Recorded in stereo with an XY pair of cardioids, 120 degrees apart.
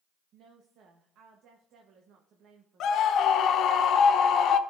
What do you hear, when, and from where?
0.3 s a woman speaking: 65° right, 1.0 m
2.8 s a scream: 65° left, 0.7 m